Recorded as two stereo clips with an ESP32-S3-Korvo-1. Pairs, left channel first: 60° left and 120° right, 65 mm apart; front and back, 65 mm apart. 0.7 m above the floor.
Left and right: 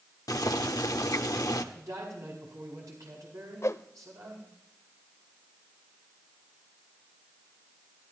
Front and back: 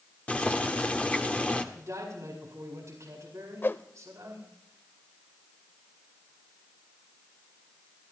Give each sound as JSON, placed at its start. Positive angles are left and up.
{"t": 0.3, "sound": "boiling", "azimuth_deg": 65, "distance_m": 1.0}
{"t": 1.7, "sound": "a man speaking", "azimuth_deg": -145, "distance_m": 4.5}
{"t": 3.6, "sound": "a whoosh", "azimuth_deg": 45, "distance_m": 0.5}